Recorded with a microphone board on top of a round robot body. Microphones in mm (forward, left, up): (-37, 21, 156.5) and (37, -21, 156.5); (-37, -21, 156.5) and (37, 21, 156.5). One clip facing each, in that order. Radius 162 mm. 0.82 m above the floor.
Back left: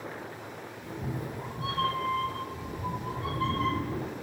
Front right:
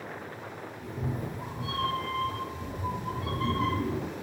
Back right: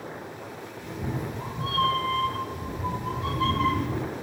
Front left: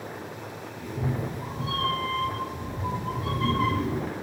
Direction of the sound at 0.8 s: 15° left.